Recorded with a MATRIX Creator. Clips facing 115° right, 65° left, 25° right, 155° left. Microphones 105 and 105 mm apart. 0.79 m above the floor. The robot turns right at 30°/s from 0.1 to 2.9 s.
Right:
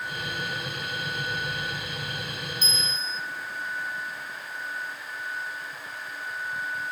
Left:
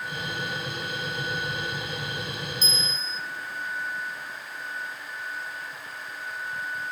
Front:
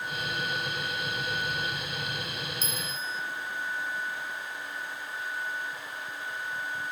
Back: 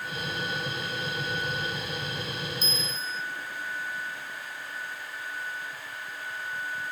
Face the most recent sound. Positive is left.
turn(degrees=-135)